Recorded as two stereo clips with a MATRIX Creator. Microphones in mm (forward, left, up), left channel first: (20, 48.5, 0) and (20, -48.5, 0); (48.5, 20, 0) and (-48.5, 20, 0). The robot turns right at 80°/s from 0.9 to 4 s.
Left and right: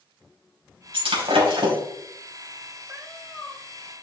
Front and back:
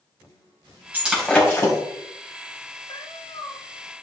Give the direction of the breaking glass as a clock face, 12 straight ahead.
4 o'clock.